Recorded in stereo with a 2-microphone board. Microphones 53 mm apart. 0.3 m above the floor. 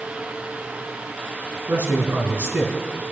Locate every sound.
1.7 s a man speaking: 40° right (ahead or behind), 3.5 m